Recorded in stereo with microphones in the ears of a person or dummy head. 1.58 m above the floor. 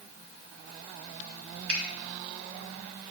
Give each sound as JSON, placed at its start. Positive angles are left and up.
{"t": 1.7, "sound": "a finger snap", "side_deg": -75, "distance_m": 1.6}